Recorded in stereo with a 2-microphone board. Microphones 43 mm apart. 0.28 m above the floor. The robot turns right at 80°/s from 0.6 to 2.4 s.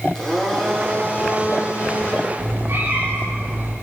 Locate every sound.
0.1 s a blender: 10° left, 9 m; by 2.3 s 145° left, 9 m
2.4 s a cat meowing: 50° right (ahead or behind), 8.5 m